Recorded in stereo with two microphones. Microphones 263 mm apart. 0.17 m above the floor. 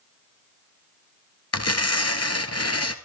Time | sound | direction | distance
1.5 | tearing paper | 70° left (ahead or behind) | 1.3 m